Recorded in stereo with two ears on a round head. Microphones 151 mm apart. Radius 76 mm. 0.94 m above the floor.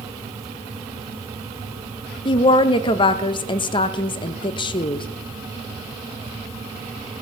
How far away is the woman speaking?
About 0.6 m.